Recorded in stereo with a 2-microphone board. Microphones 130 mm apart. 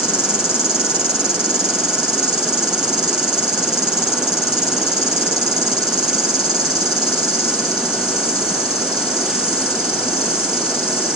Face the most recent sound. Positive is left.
turn(degrees=-30)  # may be behind; listen again after turning